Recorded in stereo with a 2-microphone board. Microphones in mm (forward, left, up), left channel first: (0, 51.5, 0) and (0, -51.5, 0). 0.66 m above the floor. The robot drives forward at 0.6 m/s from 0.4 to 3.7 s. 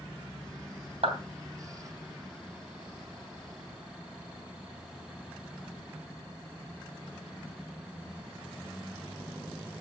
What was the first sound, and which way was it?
A clap, 80° right.